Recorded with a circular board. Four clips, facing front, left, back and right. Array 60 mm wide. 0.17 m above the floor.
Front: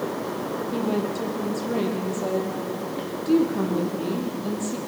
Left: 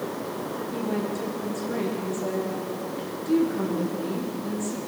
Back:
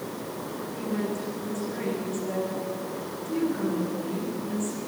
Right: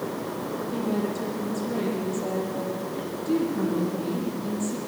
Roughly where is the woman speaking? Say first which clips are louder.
Right 1 dB, front 4 dB; ahead.